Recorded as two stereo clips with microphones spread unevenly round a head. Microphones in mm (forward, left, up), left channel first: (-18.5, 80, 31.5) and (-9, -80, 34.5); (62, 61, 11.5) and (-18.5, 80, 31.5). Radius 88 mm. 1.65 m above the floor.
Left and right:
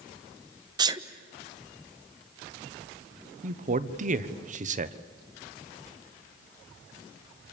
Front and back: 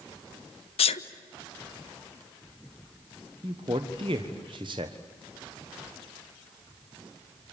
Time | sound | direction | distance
0.8 | a sneeze | 20° right | 1.1 m
3.4 | a man speaking | 130° right | 1.3 m